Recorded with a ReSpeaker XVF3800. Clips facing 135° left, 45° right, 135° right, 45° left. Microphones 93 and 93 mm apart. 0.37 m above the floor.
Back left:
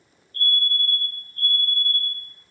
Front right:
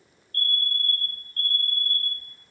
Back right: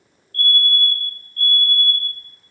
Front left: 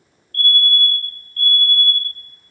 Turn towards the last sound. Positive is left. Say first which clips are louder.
# back left 4 dB, front left 1 dB
turn(degrees=55)